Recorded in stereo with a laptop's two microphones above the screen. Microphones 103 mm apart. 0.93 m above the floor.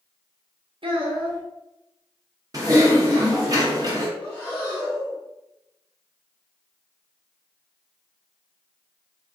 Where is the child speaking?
65° right (ahead or behind), 0.7 m.